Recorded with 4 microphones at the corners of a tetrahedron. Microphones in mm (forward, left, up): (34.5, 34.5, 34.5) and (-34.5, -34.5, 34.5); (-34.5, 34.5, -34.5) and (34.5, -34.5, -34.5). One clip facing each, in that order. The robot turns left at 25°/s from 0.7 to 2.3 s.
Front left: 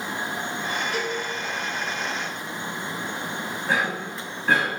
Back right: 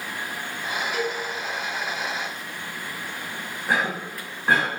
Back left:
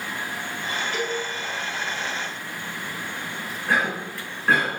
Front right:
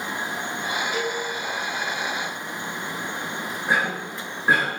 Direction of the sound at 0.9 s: 15° left.